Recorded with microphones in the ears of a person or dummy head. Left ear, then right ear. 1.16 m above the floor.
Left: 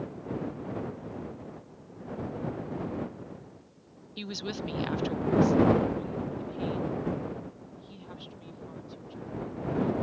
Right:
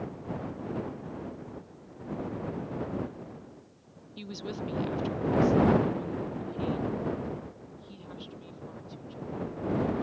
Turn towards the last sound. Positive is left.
turn(degrees=0)  # may be behind; listen again after turning